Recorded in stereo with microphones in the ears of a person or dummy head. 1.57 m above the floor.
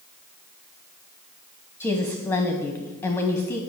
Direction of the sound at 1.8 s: 10° left (ahead or behind).